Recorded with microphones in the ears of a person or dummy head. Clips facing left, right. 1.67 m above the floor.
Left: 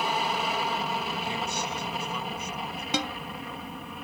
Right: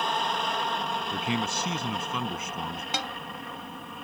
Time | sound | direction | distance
0.0 | an aircraft | 5° left (ahead or behind) | ?
1.1 | a man speaking | 50° right (ahead or behind) | ?
2.9 | a snare drum | 70° left (ahead or behind) | ?